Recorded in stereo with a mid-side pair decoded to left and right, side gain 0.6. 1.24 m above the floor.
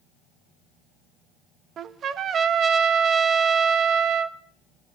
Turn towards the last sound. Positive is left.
turn(degrees=-45)